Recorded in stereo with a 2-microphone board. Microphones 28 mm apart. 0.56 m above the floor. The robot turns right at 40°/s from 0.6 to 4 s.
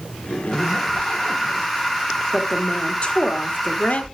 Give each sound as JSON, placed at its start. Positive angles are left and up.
{"t": 0.2, "sound": "a zipper", "azimuth_deg": 75, "distance_m": 1.3}
{"t": 2.3, "sound": "a woman speaking", "azimuth_deg": 20, "distance_m": 1.5}